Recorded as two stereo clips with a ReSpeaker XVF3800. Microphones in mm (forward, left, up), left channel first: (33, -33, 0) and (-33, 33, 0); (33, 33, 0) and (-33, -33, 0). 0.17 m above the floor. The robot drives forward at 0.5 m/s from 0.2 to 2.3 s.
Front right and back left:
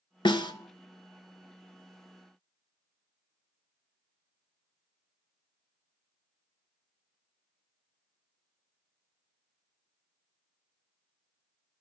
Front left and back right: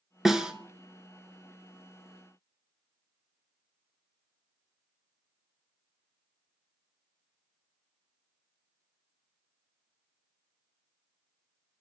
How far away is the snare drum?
About 0.9 m.